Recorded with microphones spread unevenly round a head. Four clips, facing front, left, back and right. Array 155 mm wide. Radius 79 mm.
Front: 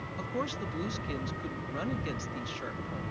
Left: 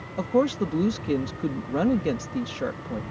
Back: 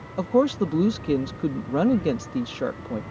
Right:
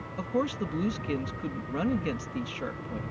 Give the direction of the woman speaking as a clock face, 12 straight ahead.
7 o'clock.